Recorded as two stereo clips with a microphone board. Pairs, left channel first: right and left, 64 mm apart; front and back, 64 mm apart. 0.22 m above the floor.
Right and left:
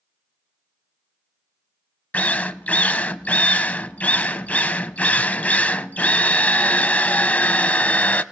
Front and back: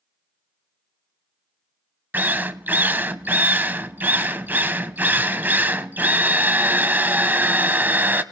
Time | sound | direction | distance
2.1 | a drill | 145° right | 0.5 m